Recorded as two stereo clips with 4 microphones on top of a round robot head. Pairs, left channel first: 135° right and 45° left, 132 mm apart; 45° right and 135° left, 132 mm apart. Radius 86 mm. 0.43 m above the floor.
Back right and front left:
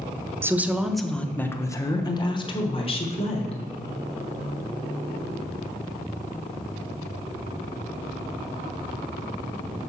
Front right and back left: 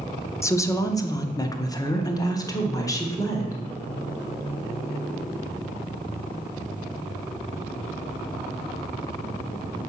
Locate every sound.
0.4 s a woman speaking: 5° right, 0.9 m; by 3.6 s 105° right, 1.7 m